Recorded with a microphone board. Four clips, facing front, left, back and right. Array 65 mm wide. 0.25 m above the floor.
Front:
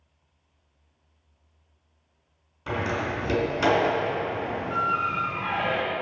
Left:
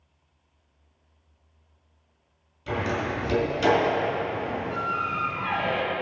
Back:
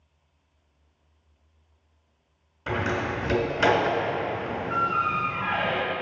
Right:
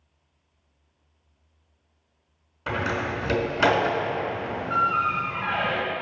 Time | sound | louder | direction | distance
2.7 | a door slam | right 1 dB, back 1 dB | 95° right | 1.9 m